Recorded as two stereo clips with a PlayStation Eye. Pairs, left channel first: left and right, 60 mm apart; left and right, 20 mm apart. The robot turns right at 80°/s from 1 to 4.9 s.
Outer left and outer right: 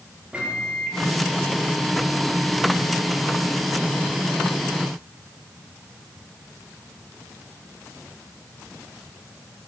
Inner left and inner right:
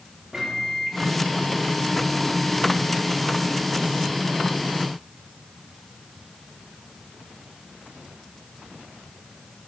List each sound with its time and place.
0.3 s a microwave: 20° right (ahead or behind), 1.3 m